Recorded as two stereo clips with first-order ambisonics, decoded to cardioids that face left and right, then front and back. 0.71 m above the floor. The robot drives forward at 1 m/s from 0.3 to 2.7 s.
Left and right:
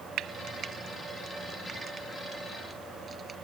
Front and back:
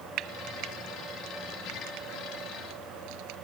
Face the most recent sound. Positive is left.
turn(degrees=-165)